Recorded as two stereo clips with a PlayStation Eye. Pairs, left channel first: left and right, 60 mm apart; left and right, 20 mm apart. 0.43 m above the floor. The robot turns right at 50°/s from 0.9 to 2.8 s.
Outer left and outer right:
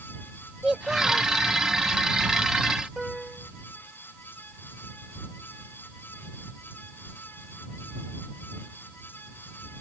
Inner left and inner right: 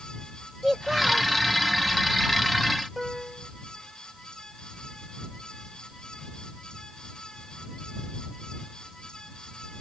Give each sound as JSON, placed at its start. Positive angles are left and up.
{"t": 0.6, "sound": "a child speaking", "side_deg": -10}
{"t": 3.0, "sound": "a piano", "side_deg": -5}